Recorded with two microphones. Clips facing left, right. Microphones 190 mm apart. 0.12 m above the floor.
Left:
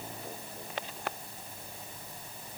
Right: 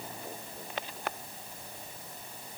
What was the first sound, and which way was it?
Only background noise.